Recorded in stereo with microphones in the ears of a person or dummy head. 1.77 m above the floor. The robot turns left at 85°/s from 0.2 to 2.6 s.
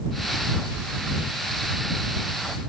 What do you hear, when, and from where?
Only background noise.